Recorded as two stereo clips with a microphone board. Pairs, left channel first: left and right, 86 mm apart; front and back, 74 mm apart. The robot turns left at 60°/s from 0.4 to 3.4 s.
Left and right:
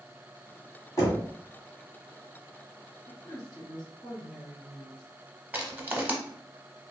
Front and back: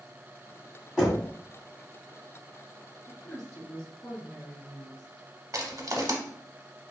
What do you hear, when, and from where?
1.0 s knocking: 95° left, 1.5 m; by 1.3 s 75° left, 1.5 m
3.1 s a woman speaking: 70° left, 1.8 m; by 5.0 s 50° left, 1.8 m
5.5 s crushing: 155° right, 0.6 m